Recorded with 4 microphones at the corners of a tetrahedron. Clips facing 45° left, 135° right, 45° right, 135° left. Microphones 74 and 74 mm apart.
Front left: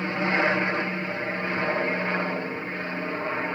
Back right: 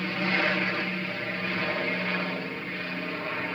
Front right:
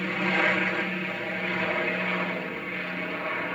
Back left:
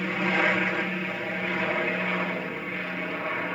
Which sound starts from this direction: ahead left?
An aircraft, at 0.0 s.